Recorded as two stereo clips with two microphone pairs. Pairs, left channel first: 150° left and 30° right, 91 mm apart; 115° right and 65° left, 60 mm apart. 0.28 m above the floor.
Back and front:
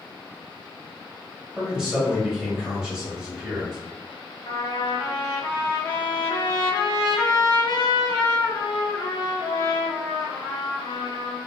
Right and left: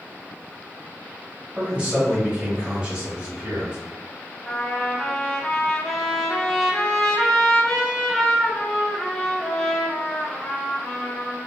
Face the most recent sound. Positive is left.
turn(degrees=170)